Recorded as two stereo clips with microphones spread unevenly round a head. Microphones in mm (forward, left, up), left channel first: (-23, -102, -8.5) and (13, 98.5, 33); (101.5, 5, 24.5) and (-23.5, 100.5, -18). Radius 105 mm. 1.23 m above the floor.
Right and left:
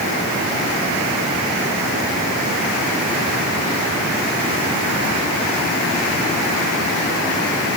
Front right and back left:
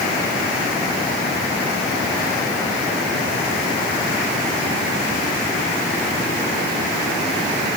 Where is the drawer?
No drawer in this recording.